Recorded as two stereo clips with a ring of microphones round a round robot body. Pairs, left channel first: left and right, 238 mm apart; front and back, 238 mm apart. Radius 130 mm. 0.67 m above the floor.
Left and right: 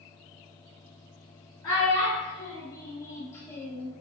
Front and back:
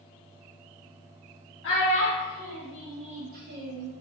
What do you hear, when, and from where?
1.6 s a child speaking: 15° left, 0.9 m; by 3.9 s 170° left, 1.0 m